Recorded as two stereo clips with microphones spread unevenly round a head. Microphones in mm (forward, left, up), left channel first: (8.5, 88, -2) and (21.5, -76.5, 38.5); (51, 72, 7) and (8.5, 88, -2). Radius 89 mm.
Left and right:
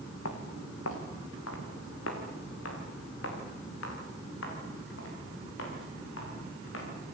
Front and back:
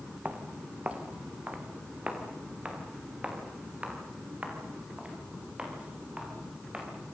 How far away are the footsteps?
About 3.5 m.